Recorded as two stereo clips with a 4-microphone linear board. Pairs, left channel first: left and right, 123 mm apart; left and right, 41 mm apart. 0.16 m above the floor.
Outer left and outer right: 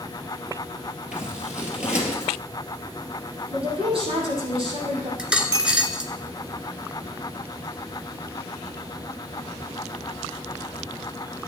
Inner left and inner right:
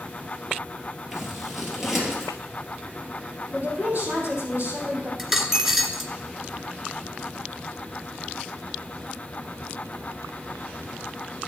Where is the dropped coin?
10° right (ahead or behind), 1.1 m.